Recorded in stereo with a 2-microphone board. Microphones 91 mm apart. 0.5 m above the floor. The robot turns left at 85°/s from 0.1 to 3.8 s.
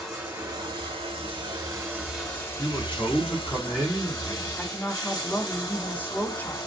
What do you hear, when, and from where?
0.0 s running water: 5° right, 1.4 m; by 6.7 s 40° left, 1.4 m
2.6 s a man speaking: 20° left (ahead or behind), 1.2 m; by 4.5 s 10° right (ahead or behind), 1.2 m
4.6 s a woman speaking: 20° left (ahead or behind), 0.7 m